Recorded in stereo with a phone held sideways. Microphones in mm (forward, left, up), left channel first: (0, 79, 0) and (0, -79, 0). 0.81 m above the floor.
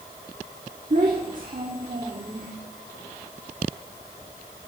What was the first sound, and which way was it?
A child speaking, 55° right (ahead or behind).